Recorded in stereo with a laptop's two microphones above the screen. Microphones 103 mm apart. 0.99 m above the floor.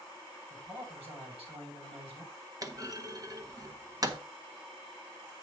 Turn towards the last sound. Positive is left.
turn(degrees=-35)  # may be behind; listen again after turning